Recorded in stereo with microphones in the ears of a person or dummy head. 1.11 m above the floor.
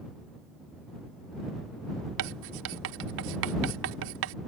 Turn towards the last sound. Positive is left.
turn(degrees=-65)  # may be behind; listen again after turning